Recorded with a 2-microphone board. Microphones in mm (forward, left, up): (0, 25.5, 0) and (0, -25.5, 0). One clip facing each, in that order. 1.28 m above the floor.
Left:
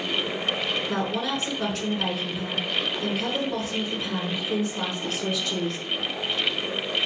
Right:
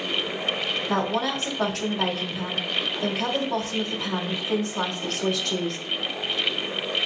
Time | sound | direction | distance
0.9 | a woman speaking | 80° right | 2 m